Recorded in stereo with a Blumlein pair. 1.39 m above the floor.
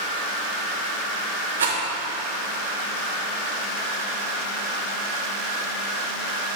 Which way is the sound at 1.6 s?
70° right.